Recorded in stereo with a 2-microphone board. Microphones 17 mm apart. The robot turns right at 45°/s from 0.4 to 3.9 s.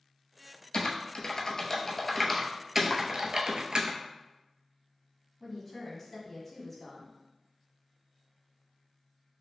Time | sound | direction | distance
0.7 | typing on a keyboard | 75° left (ahead or behind) | 0.5 m
2.9 | chopping | 40° left (ahead or behind) | 0.7 m
5.4 | a woman speaking | 10° left (ahead or behind) | 1.3 m